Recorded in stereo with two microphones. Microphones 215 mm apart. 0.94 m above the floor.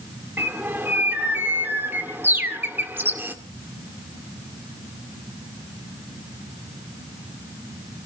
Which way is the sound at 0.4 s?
10° right (ahead or behind).